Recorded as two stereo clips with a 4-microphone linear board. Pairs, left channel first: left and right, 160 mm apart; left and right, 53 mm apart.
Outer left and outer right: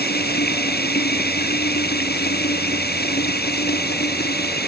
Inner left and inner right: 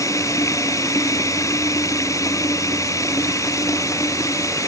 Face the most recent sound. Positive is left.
turn(degrees=90)